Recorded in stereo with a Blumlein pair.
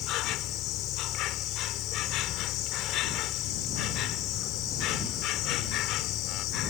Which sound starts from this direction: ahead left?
An insect, at 0.0 s.